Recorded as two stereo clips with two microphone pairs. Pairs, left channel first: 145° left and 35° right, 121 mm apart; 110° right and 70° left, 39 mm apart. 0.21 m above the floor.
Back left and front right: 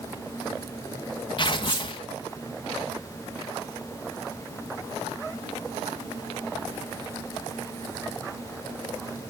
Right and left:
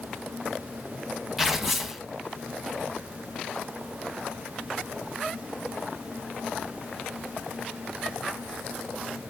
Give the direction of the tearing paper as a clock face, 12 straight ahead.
7 o'clock.